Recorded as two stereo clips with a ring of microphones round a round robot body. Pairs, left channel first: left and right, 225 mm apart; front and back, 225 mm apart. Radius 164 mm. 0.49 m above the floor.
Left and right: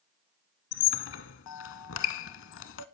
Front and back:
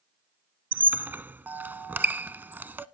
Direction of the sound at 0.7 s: 100° left.